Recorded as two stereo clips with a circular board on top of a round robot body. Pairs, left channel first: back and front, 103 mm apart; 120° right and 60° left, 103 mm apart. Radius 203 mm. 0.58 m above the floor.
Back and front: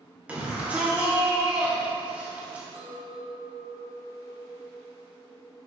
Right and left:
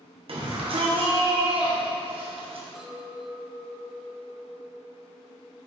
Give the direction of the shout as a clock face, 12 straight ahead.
9 o'clock.